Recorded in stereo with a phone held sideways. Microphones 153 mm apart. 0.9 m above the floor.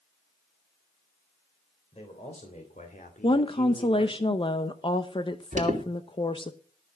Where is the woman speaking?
35° left (ahead or behind), 0.7 m.